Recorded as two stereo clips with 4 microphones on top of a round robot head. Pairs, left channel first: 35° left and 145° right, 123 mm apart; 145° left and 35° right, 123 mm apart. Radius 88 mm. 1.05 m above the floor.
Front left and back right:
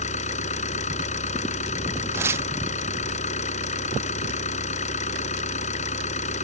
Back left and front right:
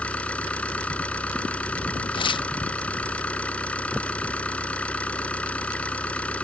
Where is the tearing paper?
155° left.